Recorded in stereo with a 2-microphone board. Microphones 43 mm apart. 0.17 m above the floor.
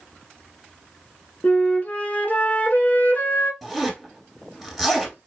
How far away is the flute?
About 0.5 m.